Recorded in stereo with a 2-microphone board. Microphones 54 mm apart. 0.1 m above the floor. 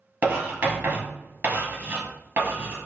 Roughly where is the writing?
Right.